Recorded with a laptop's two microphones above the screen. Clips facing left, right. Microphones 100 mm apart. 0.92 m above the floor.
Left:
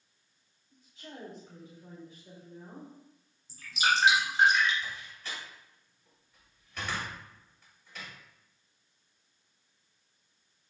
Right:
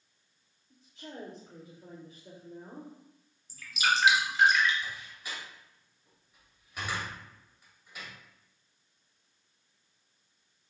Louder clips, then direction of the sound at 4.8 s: Even; 15° right (ahead or behind).